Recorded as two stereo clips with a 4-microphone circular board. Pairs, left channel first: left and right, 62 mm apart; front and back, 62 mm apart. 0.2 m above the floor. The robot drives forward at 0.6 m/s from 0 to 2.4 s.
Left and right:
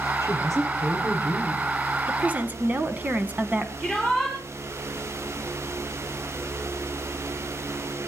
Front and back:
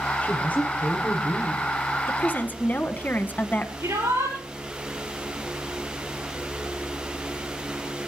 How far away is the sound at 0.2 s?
About 6 m.